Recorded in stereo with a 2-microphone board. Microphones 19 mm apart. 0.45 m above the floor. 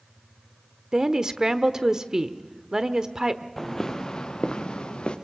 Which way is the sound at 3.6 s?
10° left (ahead or behind).